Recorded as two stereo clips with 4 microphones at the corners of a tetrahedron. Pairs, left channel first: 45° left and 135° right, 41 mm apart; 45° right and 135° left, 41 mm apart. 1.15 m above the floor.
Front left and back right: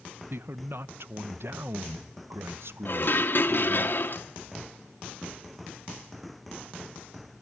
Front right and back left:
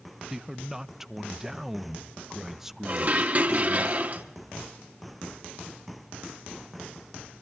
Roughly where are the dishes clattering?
Left.